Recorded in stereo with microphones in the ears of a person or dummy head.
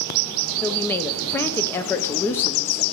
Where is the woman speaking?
20° left (ahead or behind), 0.9 m.